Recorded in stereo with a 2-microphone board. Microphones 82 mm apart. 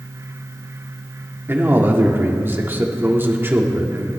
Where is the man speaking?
25° right (ahead or behind), 1.6 m.